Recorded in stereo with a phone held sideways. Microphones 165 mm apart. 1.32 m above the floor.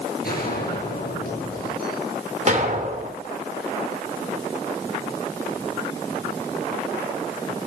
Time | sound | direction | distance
0.2 | a gunshot | 70° left (ahead or behind) | 8 m
2.5 | an explosion | 50° right (ahead or behind) | 2 m